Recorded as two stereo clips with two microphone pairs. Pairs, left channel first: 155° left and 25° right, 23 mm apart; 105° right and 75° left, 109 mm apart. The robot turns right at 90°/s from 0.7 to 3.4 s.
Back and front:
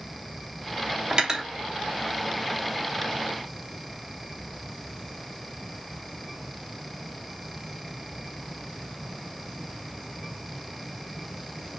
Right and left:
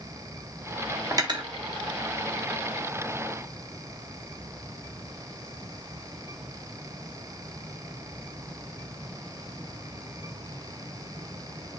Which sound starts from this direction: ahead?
Cutlery clinking, at 1.1 s.